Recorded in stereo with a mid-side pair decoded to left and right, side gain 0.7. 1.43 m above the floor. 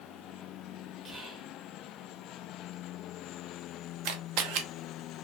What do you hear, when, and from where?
1.1 s whispering: 20° right, 0.9 m
4.0 s a camera shutter: 65° right, 0.5 m